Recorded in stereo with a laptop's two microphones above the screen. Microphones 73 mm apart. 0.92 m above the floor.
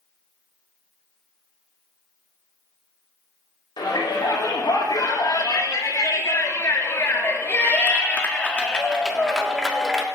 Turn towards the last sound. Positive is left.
turn(degrees=0)  # may be behind; listen again after turning